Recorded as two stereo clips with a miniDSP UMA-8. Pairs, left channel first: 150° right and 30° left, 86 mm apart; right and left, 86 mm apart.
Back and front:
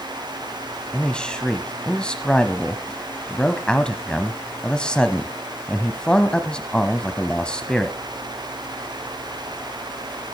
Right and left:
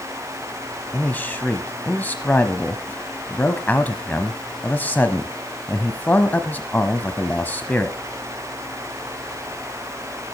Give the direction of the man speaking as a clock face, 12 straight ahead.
3 o'clock.